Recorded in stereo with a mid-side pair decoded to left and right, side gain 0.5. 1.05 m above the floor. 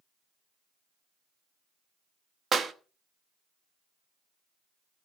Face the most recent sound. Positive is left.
turn(degrees=-40)